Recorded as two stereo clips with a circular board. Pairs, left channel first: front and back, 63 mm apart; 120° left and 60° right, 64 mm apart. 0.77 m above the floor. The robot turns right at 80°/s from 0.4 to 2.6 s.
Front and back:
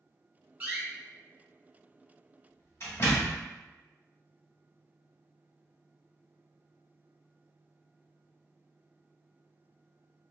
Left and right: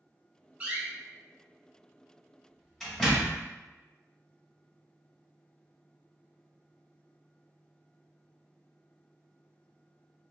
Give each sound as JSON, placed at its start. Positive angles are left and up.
{"t": 0.6, "sound": "a door slam", "azimuth_deg": -120, "distance_m": 1.1}